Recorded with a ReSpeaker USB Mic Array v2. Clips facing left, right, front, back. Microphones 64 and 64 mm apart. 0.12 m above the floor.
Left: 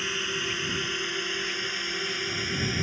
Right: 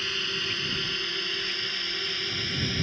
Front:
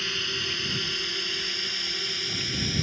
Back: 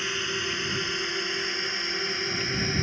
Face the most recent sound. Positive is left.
turn(degrees=155)